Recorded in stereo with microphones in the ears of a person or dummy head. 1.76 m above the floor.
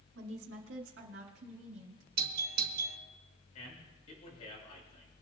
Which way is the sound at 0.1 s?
75° right (ahead or behind).